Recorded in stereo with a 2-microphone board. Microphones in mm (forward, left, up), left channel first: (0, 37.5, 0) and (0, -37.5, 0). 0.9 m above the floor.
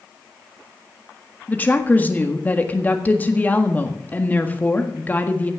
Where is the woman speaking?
25° left (ahead or behind), 1.7 m.